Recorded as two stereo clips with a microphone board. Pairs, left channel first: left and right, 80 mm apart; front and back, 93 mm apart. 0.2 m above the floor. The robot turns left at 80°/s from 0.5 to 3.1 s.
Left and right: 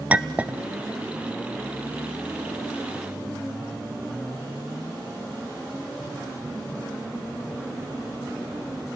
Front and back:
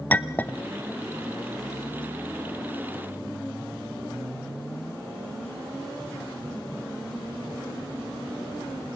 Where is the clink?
45° right, 0.6 m; by 0.6 s 50° right, 0.6 m.